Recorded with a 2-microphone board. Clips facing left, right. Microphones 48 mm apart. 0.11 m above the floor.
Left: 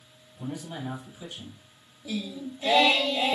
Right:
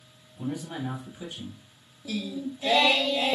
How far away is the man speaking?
About 2.5 m.